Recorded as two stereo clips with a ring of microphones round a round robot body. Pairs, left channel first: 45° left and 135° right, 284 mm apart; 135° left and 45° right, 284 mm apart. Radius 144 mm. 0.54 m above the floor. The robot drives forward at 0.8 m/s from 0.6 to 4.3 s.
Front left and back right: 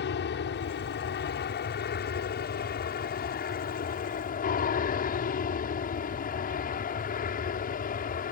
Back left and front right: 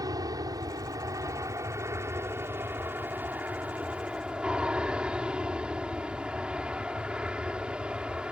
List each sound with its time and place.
0.0 s an aircraft: 25° left; by 8.3 s 40° left